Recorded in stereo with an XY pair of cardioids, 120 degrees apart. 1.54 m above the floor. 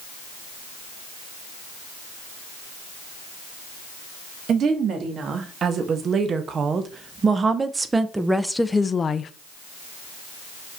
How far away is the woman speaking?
About 2.5 m.